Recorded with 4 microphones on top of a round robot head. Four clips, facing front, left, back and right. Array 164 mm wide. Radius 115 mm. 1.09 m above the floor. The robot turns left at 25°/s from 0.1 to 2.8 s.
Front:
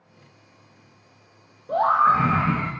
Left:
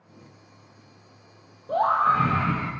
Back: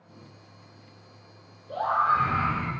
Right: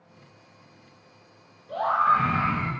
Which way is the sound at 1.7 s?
40° left.